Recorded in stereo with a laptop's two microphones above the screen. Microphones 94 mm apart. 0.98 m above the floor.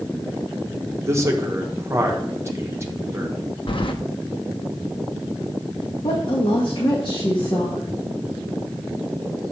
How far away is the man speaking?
About 1.1 m.